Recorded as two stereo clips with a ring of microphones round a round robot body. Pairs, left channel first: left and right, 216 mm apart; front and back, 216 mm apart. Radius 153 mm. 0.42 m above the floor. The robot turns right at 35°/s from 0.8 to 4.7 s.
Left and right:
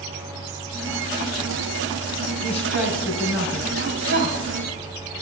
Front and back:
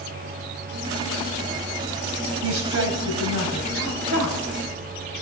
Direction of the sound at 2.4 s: 170° left.